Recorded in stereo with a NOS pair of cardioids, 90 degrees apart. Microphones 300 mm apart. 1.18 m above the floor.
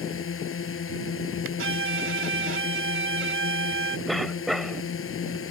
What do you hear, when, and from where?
0.0 s a drone: 45° left
1.6 s a violin: 45° right
4.1 s a cough: straight ahead